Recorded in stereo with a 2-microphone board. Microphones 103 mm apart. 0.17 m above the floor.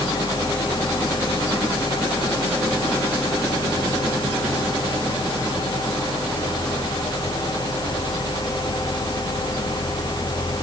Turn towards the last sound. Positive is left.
No sound to turn to.